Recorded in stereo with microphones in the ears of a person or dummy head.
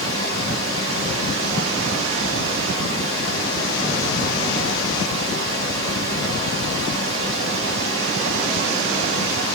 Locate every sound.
0.0 s running water: 65° right (ahead or behind), 1.4 m